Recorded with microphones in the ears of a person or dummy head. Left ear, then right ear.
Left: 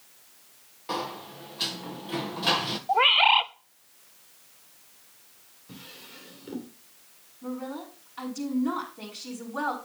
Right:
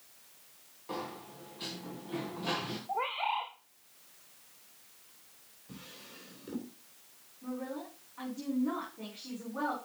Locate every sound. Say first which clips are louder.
0.9 s a sliding door: left 8 dB; 45° left (ahead or behind), 1.6 m
2.9 s a bird: left 14 dB; 60° left (ahead or behind), 0.6 m
5.7 s a drawer: left 5 dB; 15° left (ahead or behind), 3 m
7.4 s a woman speaking: left 4 dB; 75° left (ahead or behind), 5.5 m